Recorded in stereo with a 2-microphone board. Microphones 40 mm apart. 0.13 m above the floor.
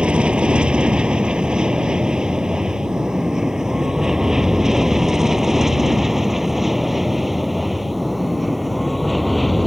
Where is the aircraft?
25° right (ahead or behind); by 9.7 s centre (ahead or behind).